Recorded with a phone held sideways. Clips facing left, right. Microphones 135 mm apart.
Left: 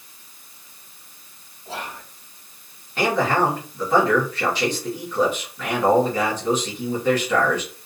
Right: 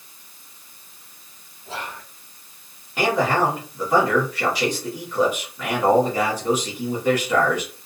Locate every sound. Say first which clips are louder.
1.6 s whispering: even; 15° left (ahead or behind), 1.6 m
3.0 s a man speaking: even; 10° right (ahead or behind), 1.3 m